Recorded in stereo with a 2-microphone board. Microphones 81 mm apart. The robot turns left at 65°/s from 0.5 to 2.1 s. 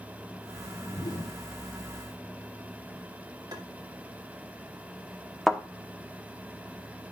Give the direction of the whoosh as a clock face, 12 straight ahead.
8 o'clock.